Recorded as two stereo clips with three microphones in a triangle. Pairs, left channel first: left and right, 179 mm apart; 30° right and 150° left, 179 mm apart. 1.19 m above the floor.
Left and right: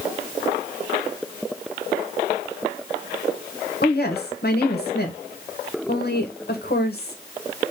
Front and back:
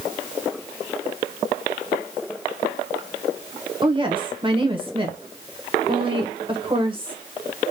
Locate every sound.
3.8 s a woman speaking: 95° left, 1.1 m